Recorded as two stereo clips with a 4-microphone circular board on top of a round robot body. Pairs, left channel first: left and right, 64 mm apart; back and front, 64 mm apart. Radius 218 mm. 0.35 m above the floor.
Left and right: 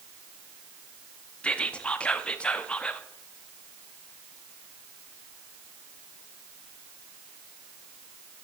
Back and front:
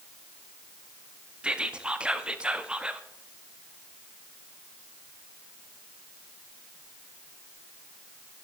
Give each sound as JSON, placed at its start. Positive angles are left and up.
{"t": 1.4, "sound": "whispering", "azimuth_deg": 50, "distance_m": 1.1}